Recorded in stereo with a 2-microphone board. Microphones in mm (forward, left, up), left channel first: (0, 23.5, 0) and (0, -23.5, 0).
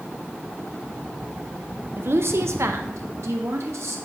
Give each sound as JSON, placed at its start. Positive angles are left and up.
{"t": 2.0, "sound": "a woman speaking", "side_deg": -55, "distance_m": 0.9}